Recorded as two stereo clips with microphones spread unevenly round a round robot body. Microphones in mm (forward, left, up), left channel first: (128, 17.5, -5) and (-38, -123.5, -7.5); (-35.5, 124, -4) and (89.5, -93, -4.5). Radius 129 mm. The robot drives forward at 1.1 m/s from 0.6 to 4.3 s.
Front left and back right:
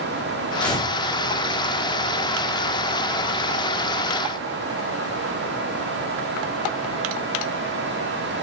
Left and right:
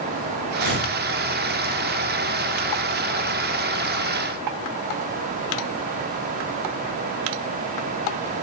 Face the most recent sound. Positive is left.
turn(degrees=-150)